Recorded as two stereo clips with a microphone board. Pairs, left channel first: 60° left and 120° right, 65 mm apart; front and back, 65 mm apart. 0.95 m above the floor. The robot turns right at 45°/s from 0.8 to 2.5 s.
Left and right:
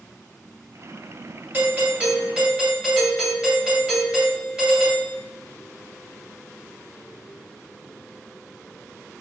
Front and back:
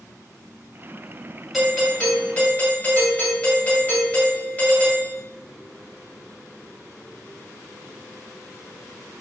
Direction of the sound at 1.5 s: 90° right.